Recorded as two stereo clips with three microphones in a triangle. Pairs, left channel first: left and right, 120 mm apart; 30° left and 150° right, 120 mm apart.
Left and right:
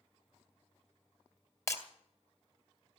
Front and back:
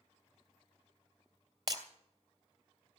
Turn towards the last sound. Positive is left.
turn(degrees=155)